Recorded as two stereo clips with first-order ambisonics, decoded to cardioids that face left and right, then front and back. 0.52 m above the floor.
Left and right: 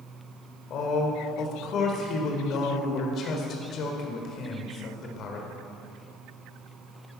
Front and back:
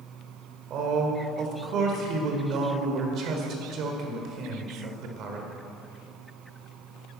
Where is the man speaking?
135° left, 1.7 m.